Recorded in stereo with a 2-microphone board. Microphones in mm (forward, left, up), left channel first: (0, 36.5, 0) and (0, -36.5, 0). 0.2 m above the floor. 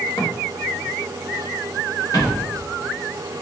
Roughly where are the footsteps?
Left.